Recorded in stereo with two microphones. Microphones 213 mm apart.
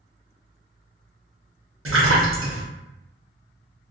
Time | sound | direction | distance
1.9 | a splash | 80° right | 0.9 m